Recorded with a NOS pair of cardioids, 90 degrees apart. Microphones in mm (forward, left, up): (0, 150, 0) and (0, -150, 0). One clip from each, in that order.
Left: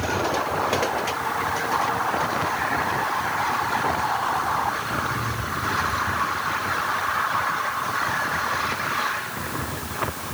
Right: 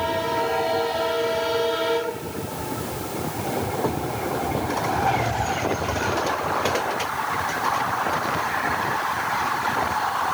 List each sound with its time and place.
Only background noise.